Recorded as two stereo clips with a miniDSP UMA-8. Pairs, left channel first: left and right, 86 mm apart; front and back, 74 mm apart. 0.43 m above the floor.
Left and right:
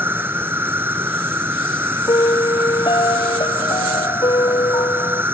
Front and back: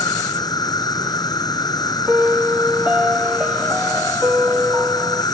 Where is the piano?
110° left.